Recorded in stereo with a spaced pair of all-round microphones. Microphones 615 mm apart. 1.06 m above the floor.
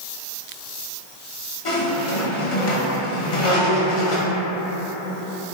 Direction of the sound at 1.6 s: 60° left (ahead or behind).